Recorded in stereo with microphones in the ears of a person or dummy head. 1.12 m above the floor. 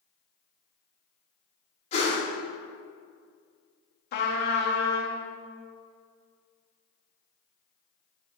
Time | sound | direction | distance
1.9 | a whoosh | 30° left (ahead or behind) | 2.0 m
4.1 | a trumpet | 60° left (ahead or behind) | 1.0 m